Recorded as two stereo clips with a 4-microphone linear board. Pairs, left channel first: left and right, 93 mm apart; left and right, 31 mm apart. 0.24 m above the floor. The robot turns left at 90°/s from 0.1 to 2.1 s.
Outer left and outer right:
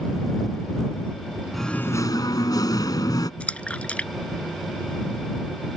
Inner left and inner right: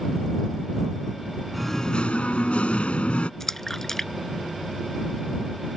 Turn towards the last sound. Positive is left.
turn(degrees=15)  # may be behind; listen again after turning